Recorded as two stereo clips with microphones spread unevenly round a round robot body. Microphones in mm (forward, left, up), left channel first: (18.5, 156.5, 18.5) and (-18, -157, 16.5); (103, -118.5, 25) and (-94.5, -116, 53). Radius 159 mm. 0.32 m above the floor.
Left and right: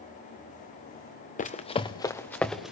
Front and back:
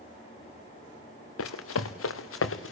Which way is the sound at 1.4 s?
15° left.